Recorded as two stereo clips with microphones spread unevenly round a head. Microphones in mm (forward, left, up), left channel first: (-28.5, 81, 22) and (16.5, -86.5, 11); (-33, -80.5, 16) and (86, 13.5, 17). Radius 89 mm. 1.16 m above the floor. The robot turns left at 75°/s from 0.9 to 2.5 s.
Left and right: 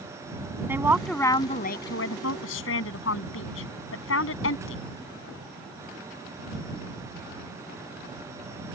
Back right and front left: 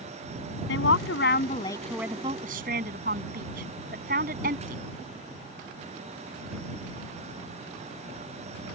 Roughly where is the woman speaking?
Behind right.